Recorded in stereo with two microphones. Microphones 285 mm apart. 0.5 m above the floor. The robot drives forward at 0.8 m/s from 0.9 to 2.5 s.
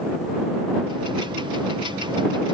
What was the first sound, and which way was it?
Only background noise.